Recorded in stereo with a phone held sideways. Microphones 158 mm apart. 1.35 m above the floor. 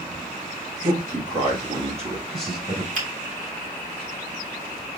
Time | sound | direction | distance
0.8 | a man speaking | 65° right (ahead or behind) | 1.7 m
3.0 | a finger snap | 65° right (ahead or behind) | 4 m